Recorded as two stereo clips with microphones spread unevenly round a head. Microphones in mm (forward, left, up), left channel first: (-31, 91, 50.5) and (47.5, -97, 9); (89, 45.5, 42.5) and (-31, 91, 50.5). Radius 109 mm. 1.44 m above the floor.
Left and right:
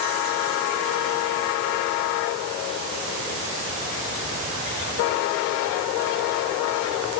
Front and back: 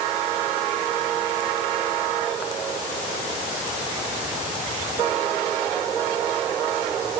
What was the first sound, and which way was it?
Only background noise.